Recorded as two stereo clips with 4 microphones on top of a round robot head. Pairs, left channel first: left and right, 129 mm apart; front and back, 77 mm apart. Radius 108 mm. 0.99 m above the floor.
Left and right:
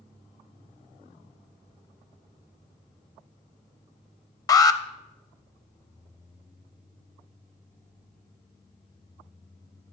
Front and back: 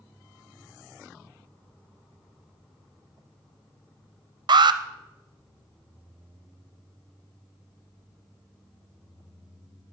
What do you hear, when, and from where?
4.5 s an alarm: 155° left, 0.5 m